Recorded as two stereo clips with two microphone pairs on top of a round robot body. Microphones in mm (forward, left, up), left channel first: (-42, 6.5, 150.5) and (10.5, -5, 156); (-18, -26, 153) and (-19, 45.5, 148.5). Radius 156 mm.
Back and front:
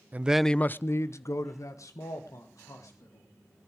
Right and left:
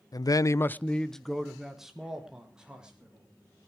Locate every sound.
0.1 s a man speaking: 70° right, 0.6 m; by 3.2 s 165° left, 3 m